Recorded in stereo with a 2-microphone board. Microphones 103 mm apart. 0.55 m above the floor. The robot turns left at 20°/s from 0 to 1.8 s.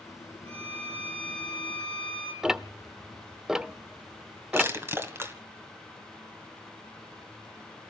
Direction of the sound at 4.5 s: 25° right (ahead or behind).